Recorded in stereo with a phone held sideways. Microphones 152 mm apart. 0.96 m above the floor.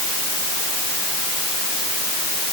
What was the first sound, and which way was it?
Only background noise.